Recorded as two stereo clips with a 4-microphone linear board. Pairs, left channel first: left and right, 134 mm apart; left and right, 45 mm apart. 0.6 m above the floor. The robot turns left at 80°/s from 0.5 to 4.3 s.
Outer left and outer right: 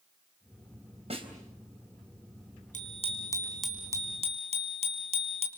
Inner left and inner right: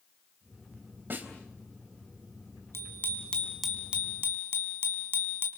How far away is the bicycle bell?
About 4 m.